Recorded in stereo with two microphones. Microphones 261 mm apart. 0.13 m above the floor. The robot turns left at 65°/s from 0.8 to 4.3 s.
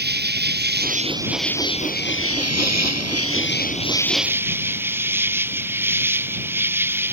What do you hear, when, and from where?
0.0 s an insect: 140° right; by 7.2 s 10° right